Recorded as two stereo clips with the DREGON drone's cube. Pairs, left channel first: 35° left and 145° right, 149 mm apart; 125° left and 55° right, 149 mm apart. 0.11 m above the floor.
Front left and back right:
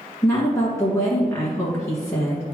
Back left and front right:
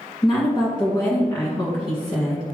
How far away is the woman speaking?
About 1.7 m.